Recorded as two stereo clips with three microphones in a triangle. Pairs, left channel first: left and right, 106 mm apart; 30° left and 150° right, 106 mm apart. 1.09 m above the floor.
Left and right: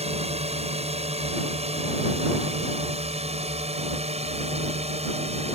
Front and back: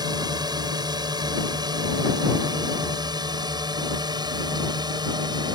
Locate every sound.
0.0 s a drone: 100° right